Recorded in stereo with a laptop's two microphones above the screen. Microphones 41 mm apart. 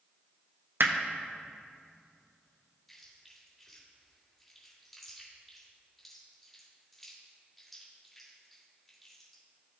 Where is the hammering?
70° right (ahead or behind), 0.6 m.